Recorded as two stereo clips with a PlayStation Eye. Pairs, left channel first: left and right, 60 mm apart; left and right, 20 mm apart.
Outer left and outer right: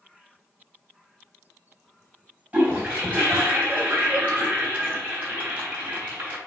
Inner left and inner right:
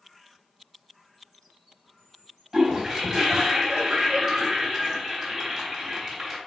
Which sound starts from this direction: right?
A toilet flushing, at 2.5 s.